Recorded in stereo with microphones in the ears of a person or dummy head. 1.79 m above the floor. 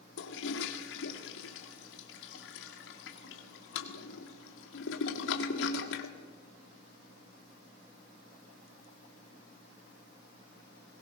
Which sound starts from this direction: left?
A toilet flushing, at 0.2 s.